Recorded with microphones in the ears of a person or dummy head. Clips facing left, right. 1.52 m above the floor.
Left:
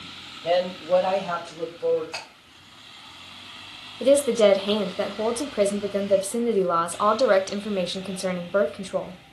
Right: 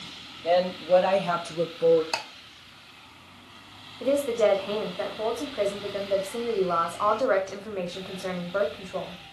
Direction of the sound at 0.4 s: 10° left (ahead or behind).